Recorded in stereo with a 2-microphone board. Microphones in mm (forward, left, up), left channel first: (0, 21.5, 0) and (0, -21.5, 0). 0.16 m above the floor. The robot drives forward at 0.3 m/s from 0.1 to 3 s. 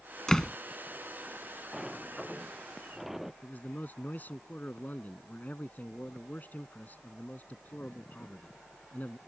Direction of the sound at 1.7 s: 5° right (ahead or behind).